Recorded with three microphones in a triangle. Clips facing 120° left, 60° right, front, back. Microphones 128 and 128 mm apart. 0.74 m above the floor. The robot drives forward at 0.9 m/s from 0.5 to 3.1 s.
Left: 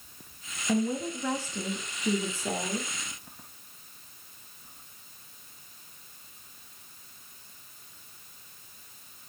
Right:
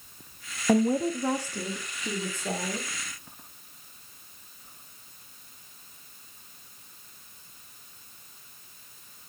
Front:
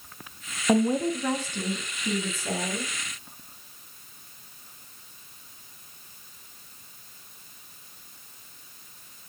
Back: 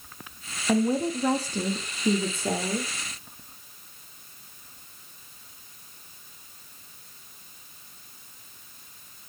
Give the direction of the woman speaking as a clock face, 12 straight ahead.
2 o'clock.